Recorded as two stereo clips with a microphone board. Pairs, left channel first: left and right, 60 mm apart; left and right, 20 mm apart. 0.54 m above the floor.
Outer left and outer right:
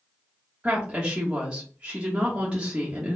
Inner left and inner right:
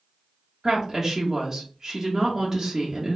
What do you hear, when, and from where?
0.6 s a woman speaking: 15° right (ahead or behind), 1.0 m